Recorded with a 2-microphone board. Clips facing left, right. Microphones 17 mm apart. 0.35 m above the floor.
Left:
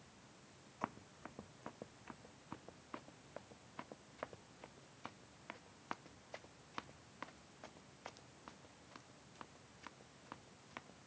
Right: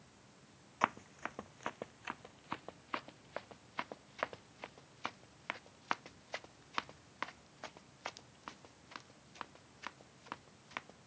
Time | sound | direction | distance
0.8 | running footsteps | 75° right (ahead or behind) | ?